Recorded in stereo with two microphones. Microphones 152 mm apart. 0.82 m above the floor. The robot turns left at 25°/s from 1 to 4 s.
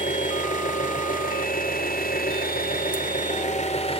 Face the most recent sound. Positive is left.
turn(degrees=40)